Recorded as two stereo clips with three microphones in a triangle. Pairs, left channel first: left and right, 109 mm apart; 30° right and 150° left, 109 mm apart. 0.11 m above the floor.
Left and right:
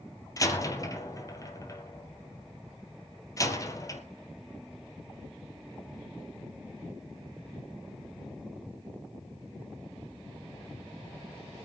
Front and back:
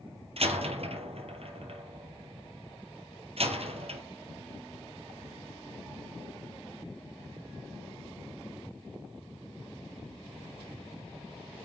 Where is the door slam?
145° left, 1.9 m.